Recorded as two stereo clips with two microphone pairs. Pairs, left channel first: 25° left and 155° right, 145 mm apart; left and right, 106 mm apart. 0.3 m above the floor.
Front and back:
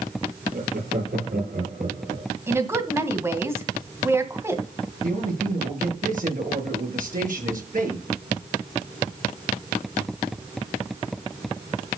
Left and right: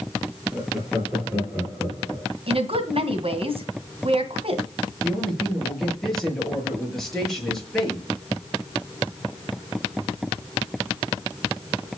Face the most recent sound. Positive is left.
turn(degrees=175)